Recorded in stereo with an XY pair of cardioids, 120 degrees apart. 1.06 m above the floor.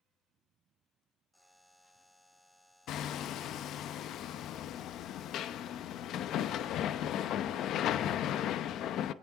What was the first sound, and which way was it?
A buzzer, 5° left.